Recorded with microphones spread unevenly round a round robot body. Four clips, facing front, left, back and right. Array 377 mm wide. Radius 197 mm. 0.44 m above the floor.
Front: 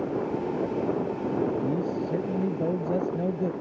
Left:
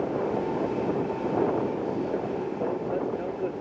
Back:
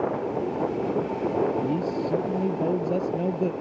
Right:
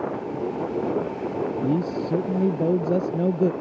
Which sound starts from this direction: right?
A man speaking, at 1.6 s.